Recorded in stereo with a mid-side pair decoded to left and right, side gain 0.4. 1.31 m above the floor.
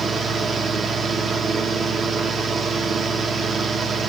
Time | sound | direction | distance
0.0 | a fan | 60° right | 1.0 m